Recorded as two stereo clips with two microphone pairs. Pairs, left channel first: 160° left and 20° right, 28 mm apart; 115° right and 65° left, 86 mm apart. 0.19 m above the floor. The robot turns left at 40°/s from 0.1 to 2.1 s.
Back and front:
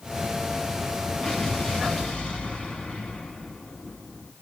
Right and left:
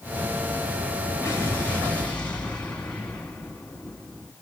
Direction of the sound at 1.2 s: 155° right.